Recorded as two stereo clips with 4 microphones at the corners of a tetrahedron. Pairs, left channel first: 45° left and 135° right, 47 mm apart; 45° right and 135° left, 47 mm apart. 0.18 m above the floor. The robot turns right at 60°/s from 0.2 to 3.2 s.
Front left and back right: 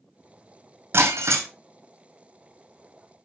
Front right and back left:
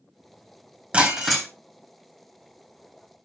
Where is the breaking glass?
155° right, 1.9 m; by 1.5 s 125° right, 1.9 m.